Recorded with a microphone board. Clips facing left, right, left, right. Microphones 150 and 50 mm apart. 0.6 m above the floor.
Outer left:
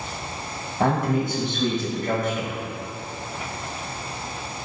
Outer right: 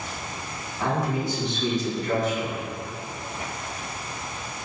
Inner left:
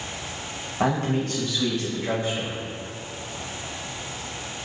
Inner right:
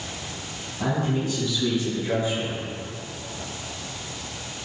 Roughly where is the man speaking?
Left.